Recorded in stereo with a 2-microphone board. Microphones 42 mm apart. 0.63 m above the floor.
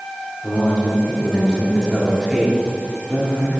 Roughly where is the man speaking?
Left.